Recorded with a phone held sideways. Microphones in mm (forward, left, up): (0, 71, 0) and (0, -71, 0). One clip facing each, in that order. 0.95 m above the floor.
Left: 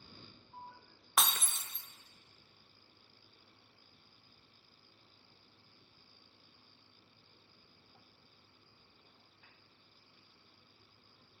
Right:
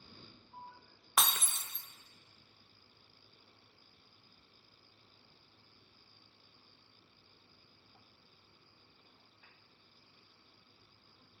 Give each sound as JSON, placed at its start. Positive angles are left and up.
{"t": 1.2, "sound": "breaking glass", "side_deg": -5, "distance_m": 0.5}